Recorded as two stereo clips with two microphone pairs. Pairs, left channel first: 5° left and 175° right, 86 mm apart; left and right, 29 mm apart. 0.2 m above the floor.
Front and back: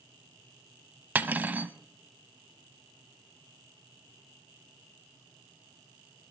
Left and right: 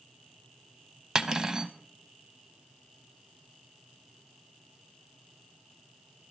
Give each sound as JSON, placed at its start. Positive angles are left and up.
{"t": 1.1, "sound": "cutlery clinking", "azimuth_deg": -120, "distance_m": 0.6}